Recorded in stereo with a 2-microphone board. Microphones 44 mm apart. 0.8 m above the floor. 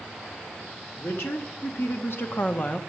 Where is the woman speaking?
70° left (ahead or behind), 2.5 m; by 2.8 s 35° left (ahead or behind), 0.9 m.